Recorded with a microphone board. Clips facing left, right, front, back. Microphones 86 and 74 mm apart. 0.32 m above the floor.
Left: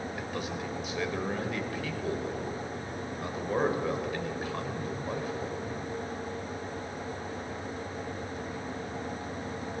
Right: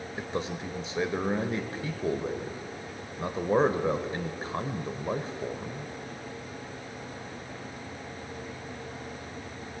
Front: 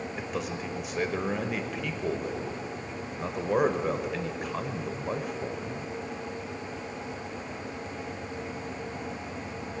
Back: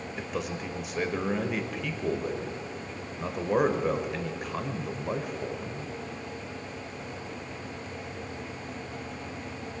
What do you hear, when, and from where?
0.2 s a man speaking: 85° right, 0.9 m